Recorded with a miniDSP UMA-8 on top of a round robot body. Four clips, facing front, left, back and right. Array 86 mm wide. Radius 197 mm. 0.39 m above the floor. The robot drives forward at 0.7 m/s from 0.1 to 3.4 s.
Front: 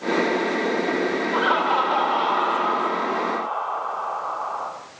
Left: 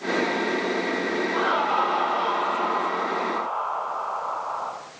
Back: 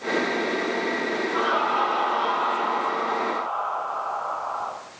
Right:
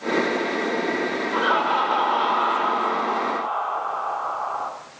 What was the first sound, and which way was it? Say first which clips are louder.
Laughter: right 3 dB, front 2 dB; 40° right.